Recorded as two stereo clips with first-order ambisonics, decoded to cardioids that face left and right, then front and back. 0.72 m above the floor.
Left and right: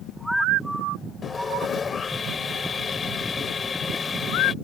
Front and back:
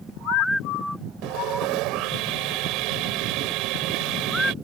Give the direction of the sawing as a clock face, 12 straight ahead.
7 o'clock.